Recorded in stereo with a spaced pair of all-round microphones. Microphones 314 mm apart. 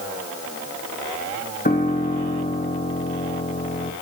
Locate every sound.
1.6 s a piano: 30° left (ahead or behind), 1.7 m